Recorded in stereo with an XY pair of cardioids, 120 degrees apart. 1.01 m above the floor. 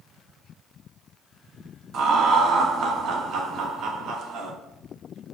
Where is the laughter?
60° right, 0.9 m.